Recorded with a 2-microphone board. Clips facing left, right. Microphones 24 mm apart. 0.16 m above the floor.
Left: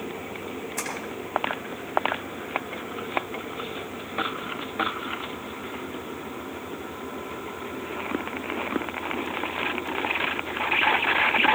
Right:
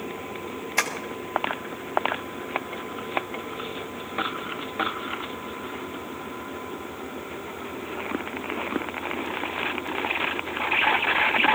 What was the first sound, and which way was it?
Tapping, 60° right (ahead or behind).